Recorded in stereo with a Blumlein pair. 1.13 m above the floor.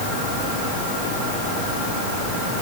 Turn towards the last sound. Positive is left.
No sound to turn to.